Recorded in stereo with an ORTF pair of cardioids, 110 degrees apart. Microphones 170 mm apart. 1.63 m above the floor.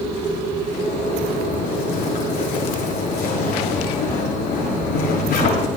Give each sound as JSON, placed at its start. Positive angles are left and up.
{"t": 0.7, "sound": "a zipper", "azimuth_deg": 70, "distance_m": 7.0}